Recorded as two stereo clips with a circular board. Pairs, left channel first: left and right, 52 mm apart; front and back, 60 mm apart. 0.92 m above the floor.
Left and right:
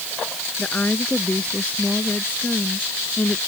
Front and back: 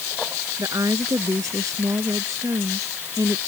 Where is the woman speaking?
155° left; by 3.4 s 150° left.